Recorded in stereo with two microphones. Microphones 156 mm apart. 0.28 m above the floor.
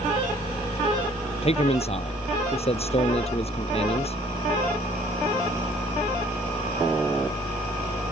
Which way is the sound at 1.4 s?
40° left (ahead or behind).